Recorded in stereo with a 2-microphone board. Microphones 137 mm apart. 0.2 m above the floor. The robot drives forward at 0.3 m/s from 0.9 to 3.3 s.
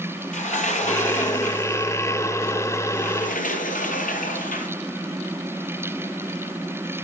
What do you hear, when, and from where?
0.3 s a sliding door: 65° left (ahead or behind), 1.6 m; by 4.7 s 80° left, 1.5 m